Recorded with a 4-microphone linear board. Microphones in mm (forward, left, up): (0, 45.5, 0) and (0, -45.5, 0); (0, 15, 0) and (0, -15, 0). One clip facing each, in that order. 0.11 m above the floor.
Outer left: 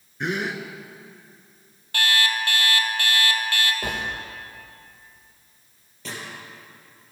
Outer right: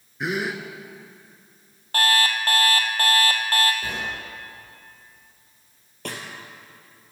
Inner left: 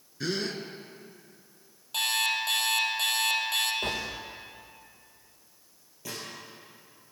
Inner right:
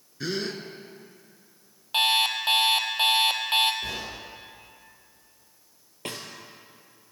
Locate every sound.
0.2 s a gasp: 5° right (ahead or behind), 1.1 m
1.9 s an alarm clock: 40° right (ahead or behind), 1.3 m
3.8 s a gunshot: 65° left (ahead or behind), 3.5 m
6.0 s a snare drum: 60° right (ahead or behind), 2.5 m